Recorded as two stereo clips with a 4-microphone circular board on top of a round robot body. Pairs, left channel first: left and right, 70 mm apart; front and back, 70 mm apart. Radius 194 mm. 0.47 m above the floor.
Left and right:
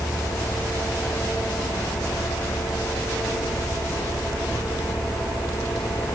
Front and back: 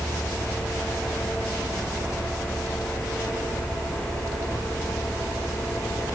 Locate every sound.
Only background noise.